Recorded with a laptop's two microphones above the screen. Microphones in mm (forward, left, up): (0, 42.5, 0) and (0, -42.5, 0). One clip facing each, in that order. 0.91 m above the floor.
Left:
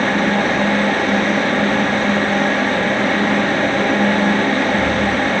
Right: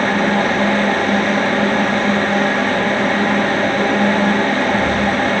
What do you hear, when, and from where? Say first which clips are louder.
0.0 s a fan: right 1 dB; centre (ahead or behind), 1.6 m